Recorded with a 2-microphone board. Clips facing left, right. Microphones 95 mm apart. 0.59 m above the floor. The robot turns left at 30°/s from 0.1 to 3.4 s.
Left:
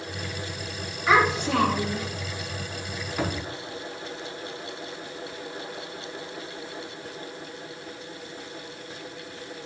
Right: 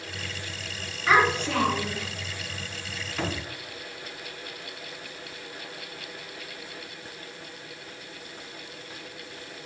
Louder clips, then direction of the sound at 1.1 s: Left 1 dB; 5° left (ahead or behind).